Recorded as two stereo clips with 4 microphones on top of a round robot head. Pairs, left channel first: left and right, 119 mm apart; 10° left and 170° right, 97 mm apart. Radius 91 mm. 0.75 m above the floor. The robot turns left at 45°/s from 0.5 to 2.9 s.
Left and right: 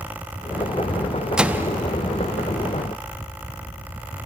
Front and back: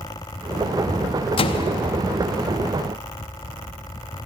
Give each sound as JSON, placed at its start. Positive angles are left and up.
{"t": 1.4, "sound": "a microwave", "azimuth_deg": -5, "distance_m": 0.9}